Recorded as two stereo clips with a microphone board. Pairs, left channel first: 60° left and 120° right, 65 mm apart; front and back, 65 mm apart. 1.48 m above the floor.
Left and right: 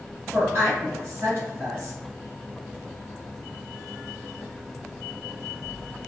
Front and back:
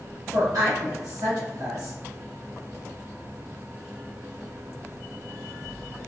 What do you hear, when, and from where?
0.3 s a woman speaking: 170° right, 1.6 m